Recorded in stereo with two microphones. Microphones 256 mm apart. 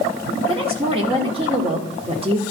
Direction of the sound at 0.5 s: 20° right (ahead or behind).